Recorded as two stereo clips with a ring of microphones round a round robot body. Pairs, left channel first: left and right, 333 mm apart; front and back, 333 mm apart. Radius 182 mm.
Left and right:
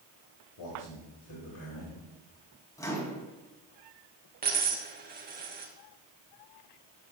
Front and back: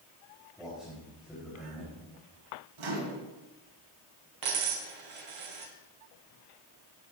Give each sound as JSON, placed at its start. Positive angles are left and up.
{"t": 0.6, "sound": "a man speaking", "azimuth_deg": 90, "distance_m": 3.5}
{"t": 2.8, "sound": "a microwave", "azimuth_deg": 170, "distance_m": 3.5}
{"t": 4.4, "sound": "a dropped coin", "azimuth_deg": -155, "distance_m": 3.5}